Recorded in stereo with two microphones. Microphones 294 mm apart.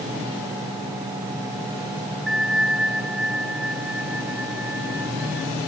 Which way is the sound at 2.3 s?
50° right (ahead or behind).